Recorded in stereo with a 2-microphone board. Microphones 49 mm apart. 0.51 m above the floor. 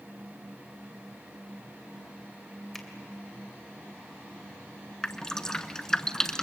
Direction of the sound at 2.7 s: 10° left (ahead or behind).